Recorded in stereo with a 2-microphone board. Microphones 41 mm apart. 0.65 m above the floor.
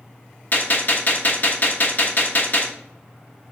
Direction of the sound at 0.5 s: 45° left (ahead or behind).